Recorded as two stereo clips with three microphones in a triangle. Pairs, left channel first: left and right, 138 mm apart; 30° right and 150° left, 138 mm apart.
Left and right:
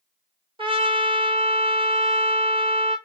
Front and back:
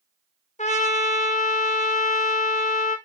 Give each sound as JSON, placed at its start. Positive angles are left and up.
{"t": 0.6, "sound": "a trumpet", "azimuth_deg": -45, "distance_m": 0.9}